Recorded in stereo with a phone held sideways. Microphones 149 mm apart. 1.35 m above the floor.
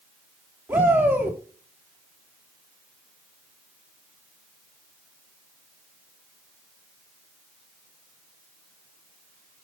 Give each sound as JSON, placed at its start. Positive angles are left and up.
{"t": 0.7, "sound": "a shout", "side_deg": -15, "distance_m": 3.5}